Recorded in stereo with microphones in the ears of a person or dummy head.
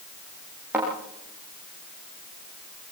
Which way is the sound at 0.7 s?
10° right (ahead or behind).